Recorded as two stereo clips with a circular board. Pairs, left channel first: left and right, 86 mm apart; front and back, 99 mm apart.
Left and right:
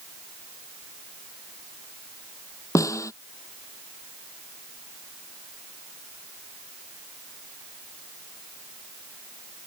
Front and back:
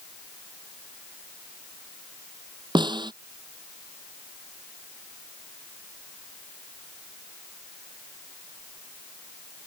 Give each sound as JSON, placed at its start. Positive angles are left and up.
{"t": 2.8, "sound": "a snare drum", "azimuth_deg": 140}